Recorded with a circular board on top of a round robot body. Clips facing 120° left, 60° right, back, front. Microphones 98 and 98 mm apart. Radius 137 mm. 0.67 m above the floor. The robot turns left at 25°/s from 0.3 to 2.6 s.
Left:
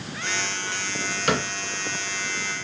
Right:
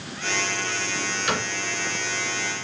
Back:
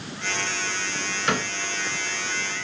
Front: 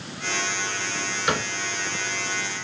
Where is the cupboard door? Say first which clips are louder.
Left 4 dB, even; 80° left, 3 m; by 1.5 s 75° left, 3 m.